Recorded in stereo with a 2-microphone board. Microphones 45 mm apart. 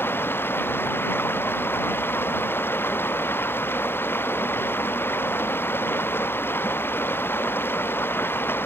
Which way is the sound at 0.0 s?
55° left (ahead or behind).